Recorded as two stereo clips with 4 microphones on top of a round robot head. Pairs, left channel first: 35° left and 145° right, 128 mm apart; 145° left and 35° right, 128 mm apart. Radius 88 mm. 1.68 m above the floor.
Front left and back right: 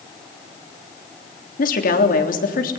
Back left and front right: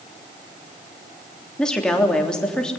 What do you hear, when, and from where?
1.6 s a woman speaking: 60° left, 3 m